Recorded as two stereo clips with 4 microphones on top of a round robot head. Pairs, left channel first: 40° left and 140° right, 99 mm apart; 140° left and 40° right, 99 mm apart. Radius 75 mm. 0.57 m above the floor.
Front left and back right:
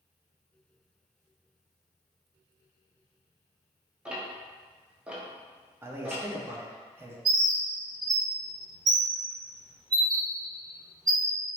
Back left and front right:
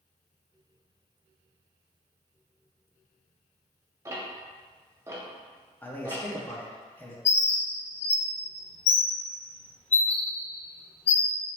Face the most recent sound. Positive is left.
turn(degrees=165)